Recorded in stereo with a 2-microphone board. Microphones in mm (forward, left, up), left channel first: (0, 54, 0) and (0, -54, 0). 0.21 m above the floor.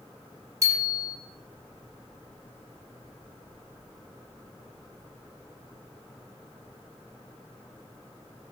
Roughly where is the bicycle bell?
Right.